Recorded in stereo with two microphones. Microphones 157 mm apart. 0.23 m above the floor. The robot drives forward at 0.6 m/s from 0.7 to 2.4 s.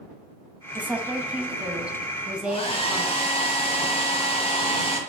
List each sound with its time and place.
0.8 s a woman speaking: 10° right (ahead or behind), 1.0 m; by 3.3 s 5° right (ahead or behind), 1.7 m
2.5 s a hair dryer: 40° left (ahead or behind), 1.6 m